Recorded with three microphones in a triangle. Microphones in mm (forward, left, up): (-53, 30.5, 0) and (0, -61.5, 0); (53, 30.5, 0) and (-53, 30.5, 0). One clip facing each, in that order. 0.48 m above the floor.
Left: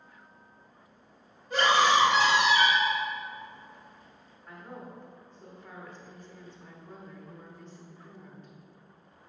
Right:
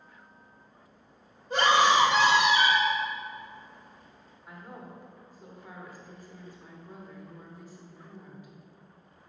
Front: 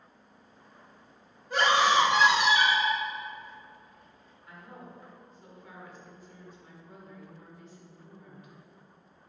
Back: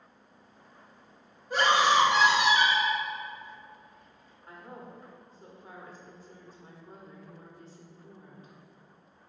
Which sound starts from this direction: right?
A scream, at 1.5 s.